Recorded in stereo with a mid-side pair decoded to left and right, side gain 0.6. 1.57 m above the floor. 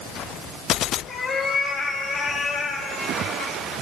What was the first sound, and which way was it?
A cat meowing, 45° left.